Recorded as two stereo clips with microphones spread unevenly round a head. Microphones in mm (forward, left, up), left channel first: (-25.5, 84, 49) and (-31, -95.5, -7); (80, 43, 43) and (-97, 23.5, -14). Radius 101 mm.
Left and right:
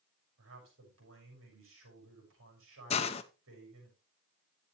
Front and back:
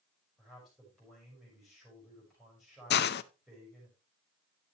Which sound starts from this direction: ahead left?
A hiss, at 2.9 s.